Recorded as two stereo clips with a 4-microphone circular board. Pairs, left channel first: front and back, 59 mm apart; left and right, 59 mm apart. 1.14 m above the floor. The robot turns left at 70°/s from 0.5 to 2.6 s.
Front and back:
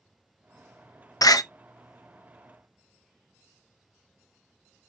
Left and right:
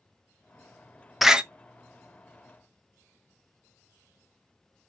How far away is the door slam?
About 0.6 m.